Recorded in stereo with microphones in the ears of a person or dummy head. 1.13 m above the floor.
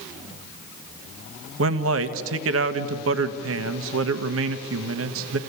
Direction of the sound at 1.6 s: 70° right (ahead or behind).